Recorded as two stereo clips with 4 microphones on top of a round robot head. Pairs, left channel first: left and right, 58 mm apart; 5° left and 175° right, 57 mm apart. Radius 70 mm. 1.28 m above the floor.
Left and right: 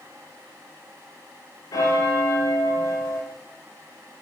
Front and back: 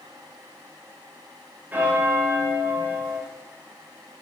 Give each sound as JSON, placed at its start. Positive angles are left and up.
{"t": 1.7, "sound": "a bell", "azimuth_deg": 120, "distance_m": 3.0}